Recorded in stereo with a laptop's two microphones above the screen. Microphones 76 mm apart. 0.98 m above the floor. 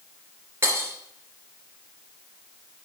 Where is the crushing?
No crushing in this recording.